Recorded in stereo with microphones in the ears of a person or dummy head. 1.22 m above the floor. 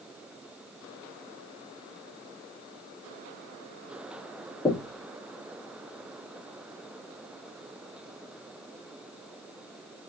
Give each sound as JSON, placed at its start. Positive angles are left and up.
{"t": 4.7, "sound": "knocking", "side_deg": 5, "distance_m": 0.8}